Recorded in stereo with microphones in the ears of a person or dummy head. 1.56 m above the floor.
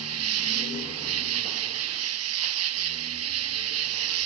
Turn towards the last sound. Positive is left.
turn(degrees=-75)  # may be behind; listen again after turning